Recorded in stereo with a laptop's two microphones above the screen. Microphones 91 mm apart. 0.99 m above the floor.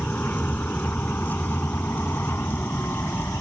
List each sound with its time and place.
0.0 s a vehicle: 20° left (ahead or behind); by 3.4 s 25° left (ahead or behind)